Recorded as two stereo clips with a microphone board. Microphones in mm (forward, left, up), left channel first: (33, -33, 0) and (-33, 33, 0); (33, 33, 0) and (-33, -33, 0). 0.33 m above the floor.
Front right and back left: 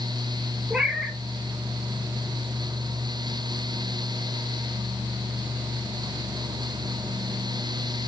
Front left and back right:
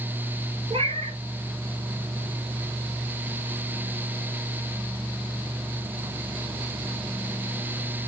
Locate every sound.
0.7 s a cat meowing: 140° right, 1.3 m